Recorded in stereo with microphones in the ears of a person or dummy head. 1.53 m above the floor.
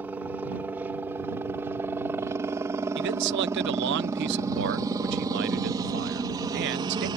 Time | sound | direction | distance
0.0 | a helicopter | 5° right (ahead or behind) | ?
3.0 | a man speaking | 60° right (ahead or behind) | ?